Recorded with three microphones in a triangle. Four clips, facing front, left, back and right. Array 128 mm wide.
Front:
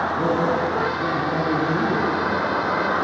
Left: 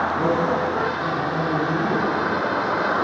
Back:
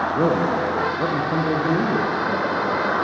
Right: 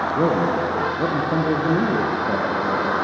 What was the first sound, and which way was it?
A man speaking, 135° right.